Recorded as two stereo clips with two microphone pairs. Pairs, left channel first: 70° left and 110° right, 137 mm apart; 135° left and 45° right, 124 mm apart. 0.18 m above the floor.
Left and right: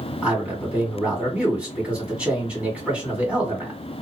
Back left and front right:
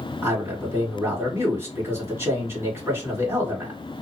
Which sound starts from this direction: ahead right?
A man speaking, at 0.2 s.